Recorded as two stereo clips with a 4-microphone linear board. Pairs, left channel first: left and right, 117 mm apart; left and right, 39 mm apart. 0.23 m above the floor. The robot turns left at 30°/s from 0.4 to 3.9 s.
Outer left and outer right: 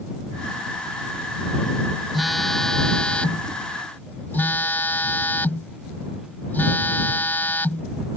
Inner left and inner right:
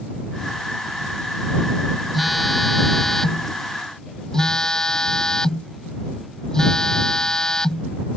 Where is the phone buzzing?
Centre (ahead or behind); by 7.9 s 15° left (ahead or behind).